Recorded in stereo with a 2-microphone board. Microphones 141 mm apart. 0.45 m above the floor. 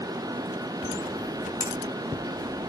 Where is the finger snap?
25° right (ahead or behind), 3 m.